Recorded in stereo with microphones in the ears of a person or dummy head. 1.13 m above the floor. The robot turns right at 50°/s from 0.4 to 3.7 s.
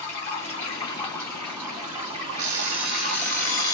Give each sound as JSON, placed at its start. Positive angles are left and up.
{"t": 0.0, "sound": "running water", "azimuth_deg": 130, "distance_m": 1.2}
{"t": 2.4, "sound": "an alarm clock", "azimuth_deg": -30, "distance_m": 0.6}